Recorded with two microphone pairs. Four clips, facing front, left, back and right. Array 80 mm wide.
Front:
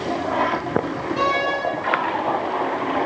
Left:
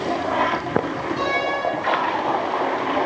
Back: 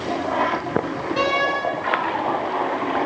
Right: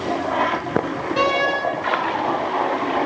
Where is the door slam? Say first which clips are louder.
Right 5 dB, even; 100° right, 6 m.